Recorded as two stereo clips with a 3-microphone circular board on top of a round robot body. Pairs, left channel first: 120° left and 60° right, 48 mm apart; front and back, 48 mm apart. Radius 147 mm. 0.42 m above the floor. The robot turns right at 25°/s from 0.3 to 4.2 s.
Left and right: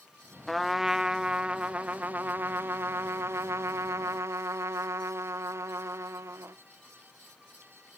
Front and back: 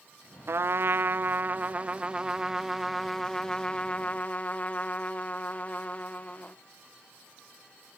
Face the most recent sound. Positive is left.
turn(degrees=-60)